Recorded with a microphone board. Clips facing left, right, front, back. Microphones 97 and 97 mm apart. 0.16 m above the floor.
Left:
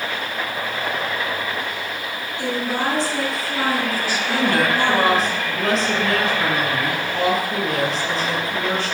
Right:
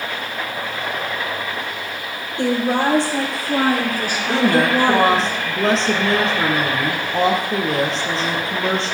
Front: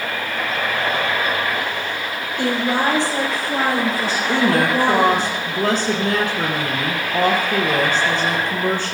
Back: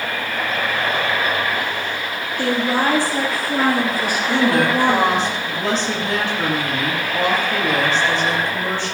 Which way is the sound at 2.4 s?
70° right.